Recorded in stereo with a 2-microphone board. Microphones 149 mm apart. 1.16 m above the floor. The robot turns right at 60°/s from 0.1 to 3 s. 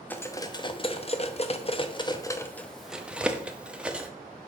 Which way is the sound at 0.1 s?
10° left (ahead or behind).